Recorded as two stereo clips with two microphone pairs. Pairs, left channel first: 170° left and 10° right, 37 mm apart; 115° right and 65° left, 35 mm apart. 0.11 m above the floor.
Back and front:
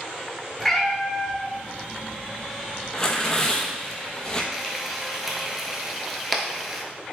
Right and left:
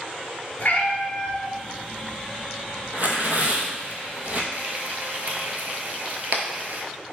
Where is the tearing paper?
105° left, 0.6 m.